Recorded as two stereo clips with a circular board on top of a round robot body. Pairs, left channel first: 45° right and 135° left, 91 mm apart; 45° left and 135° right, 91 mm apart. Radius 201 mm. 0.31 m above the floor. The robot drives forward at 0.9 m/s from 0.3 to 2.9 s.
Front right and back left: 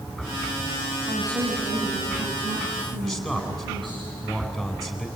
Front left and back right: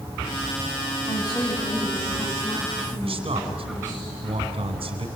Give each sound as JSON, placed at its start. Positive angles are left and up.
{"t": 1.1, "sound": "a woman speaking", "azimuth_deg": 90, "distance_m": 4.5}
{"t": 3.0, "sound": "a man speaking", "azimuth_deg": -135, "distance_m": 3.5}